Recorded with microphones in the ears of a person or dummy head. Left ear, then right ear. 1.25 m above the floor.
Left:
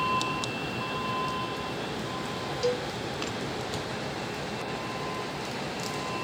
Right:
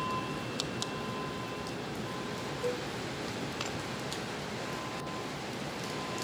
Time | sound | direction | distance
0.0 | a vehicle | 25° left (ahead or behind) | ?
2.6 | a cowbell | 55° left (ahead or behind) | ?